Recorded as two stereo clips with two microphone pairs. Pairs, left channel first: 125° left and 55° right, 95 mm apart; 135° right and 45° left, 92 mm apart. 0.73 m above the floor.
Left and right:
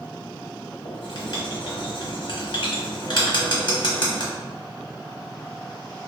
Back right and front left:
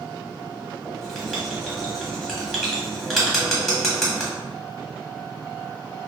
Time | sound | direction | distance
0.8 | writing | 135° left | 0.8 m